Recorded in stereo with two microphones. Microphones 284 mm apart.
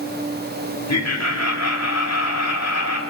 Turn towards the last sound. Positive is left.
turn(degrees=65)  # may be behind; listen again after turning